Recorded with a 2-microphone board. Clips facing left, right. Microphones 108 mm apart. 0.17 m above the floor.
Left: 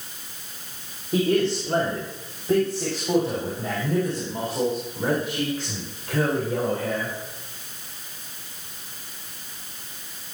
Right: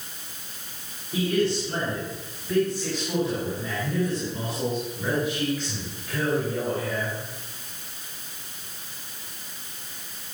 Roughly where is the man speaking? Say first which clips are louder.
Left 3 dB; left.